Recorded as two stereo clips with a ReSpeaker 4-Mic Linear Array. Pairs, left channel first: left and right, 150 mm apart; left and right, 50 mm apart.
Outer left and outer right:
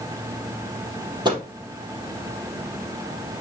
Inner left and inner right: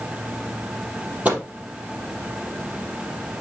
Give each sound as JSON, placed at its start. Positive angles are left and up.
{"t": 1.2, "sound": "a microwave", "side_deg": -30, "distance_m": 3.5}